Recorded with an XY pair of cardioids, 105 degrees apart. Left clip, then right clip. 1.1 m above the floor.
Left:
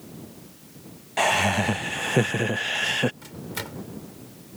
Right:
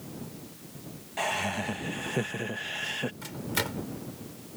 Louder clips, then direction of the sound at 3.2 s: Right 3 dB; 20° right.